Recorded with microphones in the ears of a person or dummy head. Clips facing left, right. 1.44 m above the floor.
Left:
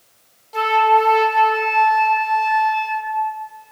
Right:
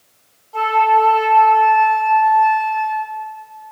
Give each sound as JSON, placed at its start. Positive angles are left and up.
{"t": 0.5, "sound": "a flute", "side_deg": 30, "distance_m": 0.6}